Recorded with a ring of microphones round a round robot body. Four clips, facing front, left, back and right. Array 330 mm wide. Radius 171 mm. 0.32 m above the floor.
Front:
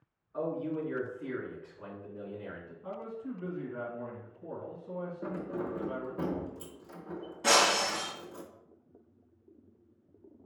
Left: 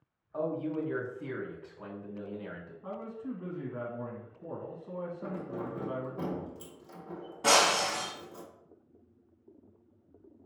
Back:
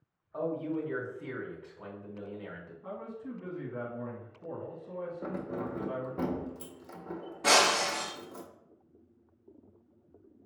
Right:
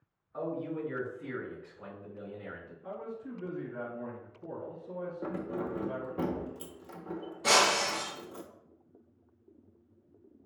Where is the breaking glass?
105° left, 1.9 m.